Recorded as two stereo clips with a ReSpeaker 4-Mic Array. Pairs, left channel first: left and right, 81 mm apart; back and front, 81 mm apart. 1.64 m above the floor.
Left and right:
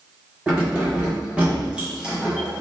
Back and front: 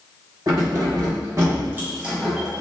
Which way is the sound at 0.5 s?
20° right.